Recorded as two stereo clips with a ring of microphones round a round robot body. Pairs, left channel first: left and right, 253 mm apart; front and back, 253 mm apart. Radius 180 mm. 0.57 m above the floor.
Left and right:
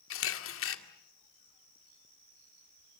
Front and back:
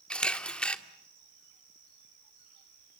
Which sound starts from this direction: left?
A camera shutter, at 0.1 s.